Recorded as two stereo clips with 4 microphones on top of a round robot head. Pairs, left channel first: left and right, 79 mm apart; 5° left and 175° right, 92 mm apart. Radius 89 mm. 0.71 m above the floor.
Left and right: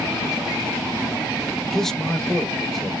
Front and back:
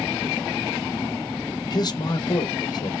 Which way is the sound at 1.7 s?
5° left.